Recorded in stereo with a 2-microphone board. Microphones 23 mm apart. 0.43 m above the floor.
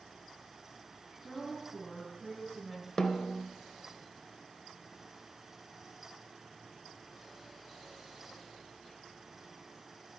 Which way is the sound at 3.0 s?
40° left (ahead or behind).